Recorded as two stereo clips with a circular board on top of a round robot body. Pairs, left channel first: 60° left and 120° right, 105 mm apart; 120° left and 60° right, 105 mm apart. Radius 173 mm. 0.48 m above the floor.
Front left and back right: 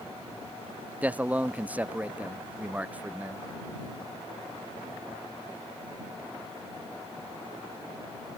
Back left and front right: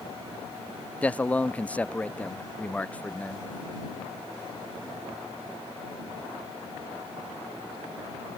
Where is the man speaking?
Straight behind.